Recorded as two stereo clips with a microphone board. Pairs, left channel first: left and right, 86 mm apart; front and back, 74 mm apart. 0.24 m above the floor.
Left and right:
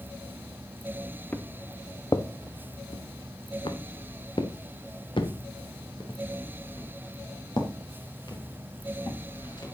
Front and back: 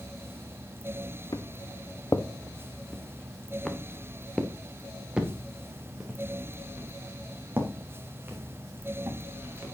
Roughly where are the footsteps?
Ahead.